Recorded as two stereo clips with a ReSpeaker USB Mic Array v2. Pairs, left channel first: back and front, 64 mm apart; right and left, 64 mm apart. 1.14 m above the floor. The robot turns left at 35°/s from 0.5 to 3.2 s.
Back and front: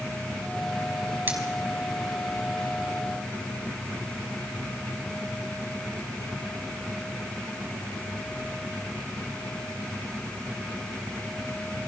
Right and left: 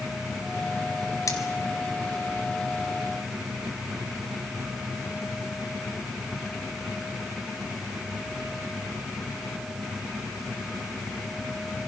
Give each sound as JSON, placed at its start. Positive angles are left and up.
{"t": 1.3, "sound": "cutlery clinking", "azimuth_deg": -55, "distance_m": 3.0}